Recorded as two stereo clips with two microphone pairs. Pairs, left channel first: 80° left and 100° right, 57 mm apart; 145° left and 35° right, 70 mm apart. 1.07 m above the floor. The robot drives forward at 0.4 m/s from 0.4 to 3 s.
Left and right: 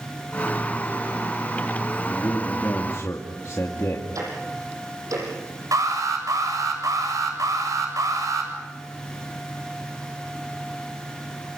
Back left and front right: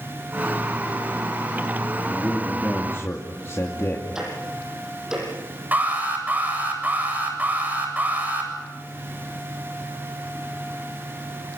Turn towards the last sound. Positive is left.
turn(degrees=-100)